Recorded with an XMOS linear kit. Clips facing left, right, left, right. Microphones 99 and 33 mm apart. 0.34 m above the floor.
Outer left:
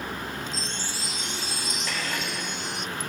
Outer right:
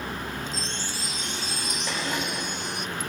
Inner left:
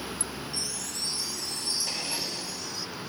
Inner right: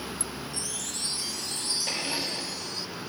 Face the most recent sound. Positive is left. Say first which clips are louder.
# outer right 3 dB, inner right 2 dB
turn(degrees=-20)  # may be behind; listen again after turning